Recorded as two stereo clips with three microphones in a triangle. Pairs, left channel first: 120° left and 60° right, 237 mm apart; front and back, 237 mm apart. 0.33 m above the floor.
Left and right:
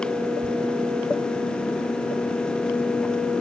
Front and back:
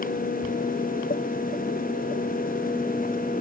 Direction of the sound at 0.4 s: 170° right.